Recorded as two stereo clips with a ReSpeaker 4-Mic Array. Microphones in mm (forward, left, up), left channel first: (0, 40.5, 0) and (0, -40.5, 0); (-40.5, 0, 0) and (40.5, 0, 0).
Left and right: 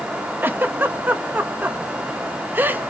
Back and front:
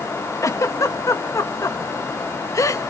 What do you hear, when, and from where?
0.4 s a giggle: 150° right, 1.4 m